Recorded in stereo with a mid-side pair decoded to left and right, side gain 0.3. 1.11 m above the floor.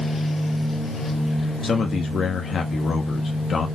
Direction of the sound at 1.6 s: 70° left.